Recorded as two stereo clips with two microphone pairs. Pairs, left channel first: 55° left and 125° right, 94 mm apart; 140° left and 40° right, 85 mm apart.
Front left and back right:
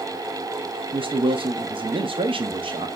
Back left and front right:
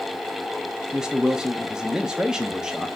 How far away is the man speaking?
About 0.6 m.